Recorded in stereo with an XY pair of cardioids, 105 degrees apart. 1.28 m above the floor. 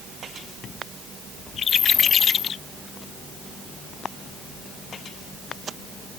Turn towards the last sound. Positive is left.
No sound to turn to.